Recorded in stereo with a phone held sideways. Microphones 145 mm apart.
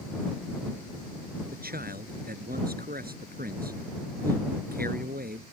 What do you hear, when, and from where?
1.5 s a man speaking: 80° right